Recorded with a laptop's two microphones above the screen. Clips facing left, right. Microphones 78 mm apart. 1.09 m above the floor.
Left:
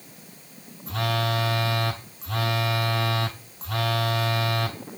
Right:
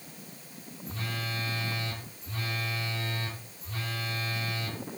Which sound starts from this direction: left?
A phone buzzing, at 0.9 s.